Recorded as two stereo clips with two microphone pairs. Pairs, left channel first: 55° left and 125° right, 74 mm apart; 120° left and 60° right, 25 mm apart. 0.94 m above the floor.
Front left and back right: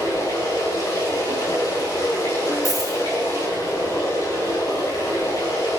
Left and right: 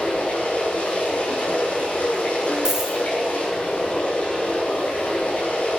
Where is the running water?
100° left, 5.5 m.